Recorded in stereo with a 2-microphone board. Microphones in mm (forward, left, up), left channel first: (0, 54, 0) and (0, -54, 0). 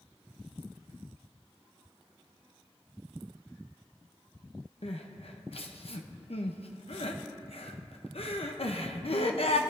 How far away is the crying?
About 0.8 m.